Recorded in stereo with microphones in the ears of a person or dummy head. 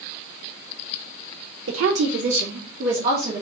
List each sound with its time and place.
1.7 s a woman speaking: 75° right (ahead or behind), 0.7 m; by 3.4 s 65° right (ahead or behind), 1.6 m